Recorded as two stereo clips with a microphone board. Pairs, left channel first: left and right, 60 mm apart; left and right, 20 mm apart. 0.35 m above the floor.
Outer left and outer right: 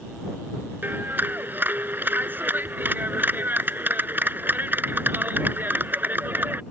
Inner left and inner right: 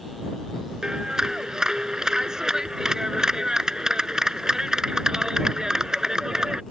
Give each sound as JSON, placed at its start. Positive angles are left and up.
{"t": 0.8, "sound": "a clap", "side_deg": -35}